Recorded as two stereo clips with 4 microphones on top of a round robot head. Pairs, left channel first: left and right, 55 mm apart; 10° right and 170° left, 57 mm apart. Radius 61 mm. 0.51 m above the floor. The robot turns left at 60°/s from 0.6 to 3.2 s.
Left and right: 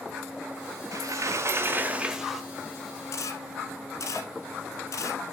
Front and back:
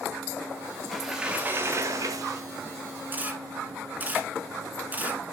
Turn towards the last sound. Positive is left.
turn(degrees=110)